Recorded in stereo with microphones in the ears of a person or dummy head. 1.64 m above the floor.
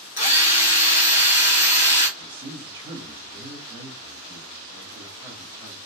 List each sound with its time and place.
0.2 s a drill: 30° left (ahead or behind), 0.7 m
2.2 s a woman speaking: 10° right (ahead or behind), 1.2 m